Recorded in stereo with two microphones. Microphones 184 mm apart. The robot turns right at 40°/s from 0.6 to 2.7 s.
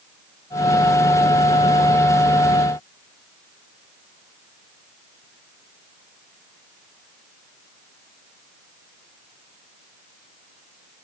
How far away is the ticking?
No ticking in this recording.